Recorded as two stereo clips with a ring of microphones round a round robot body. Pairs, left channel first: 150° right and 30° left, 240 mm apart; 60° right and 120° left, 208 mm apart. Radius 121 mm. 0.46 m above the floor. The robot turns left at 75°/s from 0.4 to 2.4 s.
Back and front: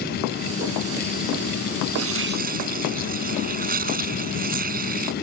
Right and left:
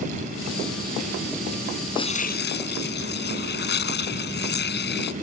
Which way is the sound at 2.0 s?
10° left.